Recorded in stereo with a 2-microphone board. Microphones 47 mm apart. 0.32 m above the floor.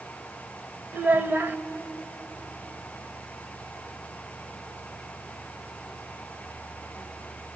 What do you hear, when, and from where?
0.9 s a child speaking: 40° right (ahead or behind), 0.7 m